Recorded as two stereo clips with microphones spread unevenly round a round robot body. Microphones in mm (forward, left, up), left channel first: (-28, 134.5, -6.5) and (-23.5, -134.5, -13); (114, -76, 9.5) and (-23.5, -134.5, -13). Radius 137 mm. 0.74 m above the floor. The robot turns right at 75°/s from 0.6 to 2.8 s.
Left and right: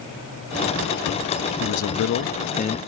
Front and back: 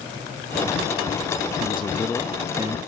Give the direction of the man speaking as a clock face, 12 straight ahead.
10 o'clock.